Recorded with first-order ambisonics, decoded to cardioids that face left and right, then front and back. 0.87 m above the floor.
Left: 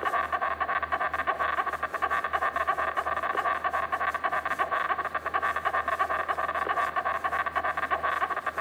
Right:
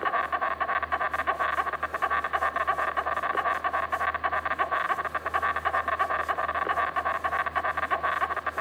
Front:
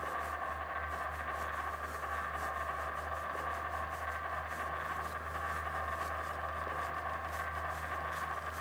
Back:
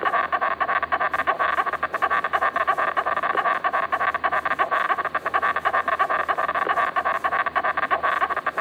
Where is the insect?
175° right, 0.8 m.